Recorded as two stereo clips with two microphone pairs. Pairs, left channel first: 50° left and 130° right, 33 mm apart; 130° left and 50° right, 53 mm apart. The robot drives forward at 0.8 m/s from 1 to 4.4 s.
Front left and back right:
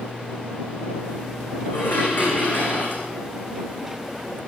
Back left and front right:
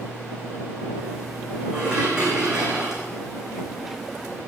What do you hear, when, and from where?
1.7 s dishes clattering: 20° left, 5 m; by 3.0 s 25° left, 4 m